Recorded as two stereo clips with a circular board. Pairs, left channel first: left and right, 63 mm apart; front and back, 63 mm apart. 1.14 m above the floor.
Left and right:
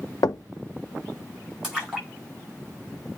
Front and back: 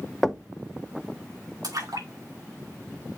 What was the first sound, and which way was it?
Knocking, 90° left.